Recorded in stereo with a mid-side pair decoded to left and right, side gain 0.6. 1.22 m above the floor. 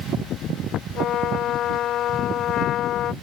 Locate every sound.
0.9 s a trumpet: 55° left